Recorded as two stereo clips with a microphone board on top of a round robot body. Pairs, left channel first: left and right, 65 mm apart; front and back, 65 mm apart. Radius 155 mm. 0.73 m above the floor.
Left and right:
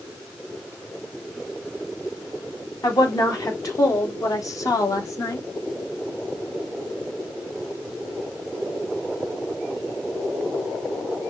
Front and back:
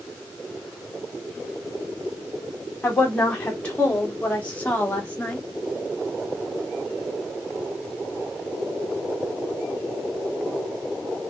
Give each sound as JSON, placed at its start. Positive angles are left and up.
{"t": 2.8, "sound": "a woman speaking", "azimuth_deg": 70, "distance_m": 2.5}